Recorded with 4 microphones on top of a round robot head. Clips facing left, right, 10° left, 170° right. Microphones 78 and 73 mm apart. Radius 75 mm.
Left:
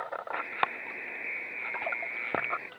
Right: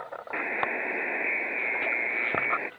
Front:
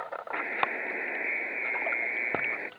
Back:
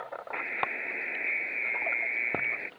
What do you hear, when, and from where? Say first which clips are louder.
0.3 s a buzzer: right 3 dB, front 3 dB; 60° right